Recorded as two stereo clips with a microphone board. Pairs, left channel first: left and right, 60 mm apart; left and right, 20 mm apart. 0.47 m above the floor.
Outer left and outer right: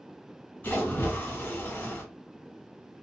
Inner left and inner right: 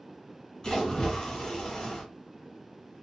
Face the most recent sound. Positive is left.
turn(degrees=35)  # may be behind; listen again after turning